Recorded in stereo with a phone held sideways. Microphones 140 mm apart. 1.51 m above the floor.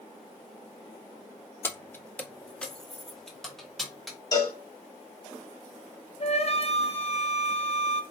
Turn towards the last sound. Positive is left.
turn(degrees=50)  # may be behind; listen again after turning